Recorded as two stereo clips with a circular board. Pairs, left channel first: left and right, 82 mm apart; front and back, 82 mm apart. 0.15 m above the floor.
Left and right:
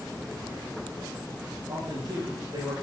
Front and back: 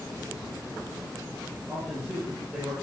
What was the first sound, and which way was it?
A man speaking, 110° right.